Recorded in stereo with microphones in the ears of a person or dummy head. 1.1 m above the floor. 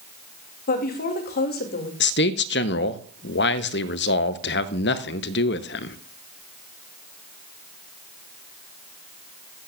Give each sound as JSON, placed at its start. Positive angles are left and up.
{"t": 0.7, "sound": "a woman speaking", "side_deg": 50, "distance_m": 2.0}
{"t": 2.0, "sound": "a man speaking", "side_deg": 55, "distance_m": 0.8}